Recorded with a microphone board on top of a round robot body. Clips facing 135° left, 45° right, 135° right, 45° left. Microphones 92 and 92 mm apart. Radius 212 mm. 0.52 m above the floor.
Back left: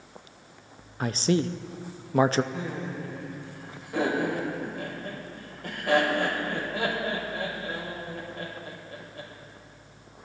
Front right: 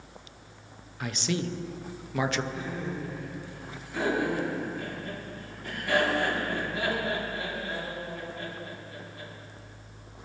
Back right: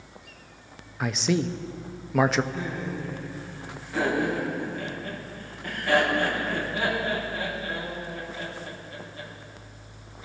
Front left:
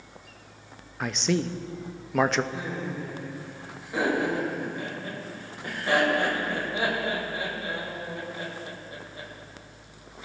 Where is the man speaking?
140° left, 0.7 m.